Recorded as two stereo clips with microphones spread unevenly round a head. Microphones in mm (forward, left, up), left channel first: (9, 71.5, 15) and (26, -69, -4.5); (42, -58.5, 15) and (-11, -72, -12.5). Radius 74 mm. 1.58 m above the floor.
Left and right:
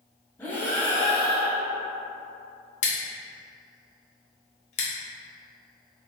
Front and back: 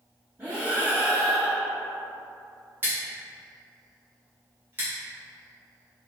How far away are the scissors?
About 0.8 m.